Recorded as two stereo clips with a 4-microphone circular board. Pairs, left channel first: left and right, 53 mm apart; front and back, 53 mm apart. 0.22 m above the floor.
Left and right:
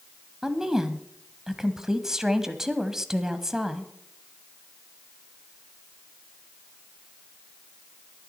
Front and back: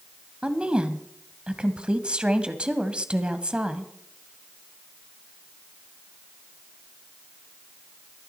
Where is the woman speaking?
150° right, 1.1 m.